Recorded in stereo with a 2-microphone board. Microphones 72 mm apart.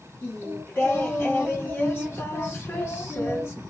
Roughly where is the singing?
Left.